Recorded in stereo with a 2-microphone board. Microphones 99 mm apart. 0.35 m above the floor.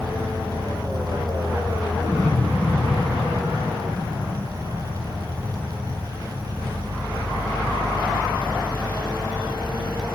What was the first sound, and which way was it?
An insect, 70° left (ahead or behind).